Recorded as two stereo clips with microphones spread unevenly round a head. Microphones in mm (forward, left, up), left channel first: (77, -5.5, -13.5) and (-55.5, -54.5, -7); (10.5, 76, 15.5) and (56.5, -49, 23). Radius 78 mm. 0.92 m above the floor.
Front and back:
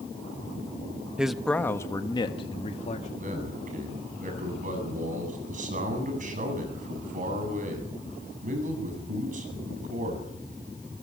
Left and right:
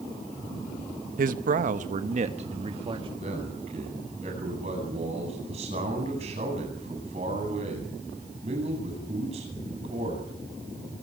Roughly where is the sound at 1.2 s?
Right.